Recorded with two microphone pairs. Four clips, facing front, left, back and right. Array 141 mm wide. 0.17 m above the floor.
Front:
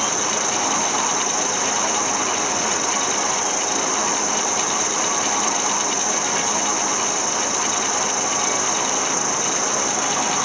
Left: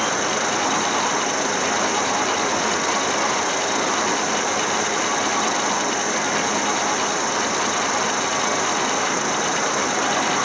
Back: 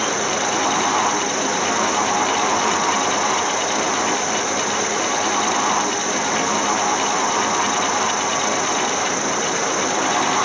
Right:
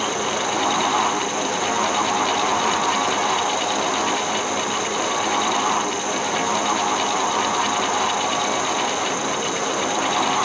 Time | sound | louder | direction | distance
0.0 | an insect | left 1 dB, back 3 dB | 105° left | 0.8 m